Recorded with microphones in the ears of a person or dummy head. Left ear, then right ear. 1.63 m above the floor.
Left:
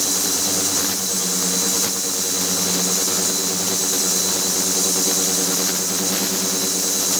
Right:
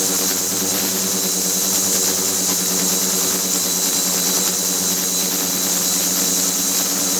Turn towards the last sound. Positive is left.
No sound to turn to.